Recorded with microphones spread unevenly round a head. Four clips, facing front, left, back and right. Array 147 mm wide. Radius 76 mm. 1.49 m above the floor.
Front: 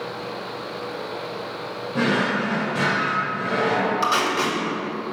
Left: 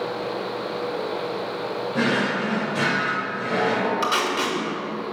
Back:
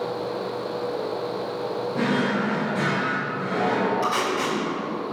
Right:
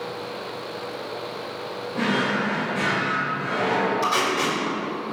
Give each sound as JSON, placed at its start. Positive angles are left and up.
{"t": 1.9, "sound": "a drawer", "azimuth_deg": 65, "distance_m": 1.6}
{"t": 4.0, "sound": "tape being pulled", "azimuth_deg": 35, "distance_m": 2.5}